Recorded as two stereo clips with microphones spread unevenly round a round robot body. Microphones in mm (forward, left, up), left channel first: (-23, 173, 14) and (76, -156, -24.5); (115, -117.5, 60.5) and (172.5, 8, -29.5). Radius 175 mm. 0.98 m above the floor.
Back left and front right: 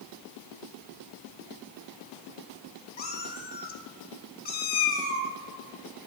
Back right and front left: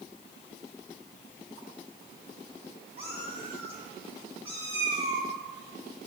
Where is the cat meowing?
165° left, 1.0 m.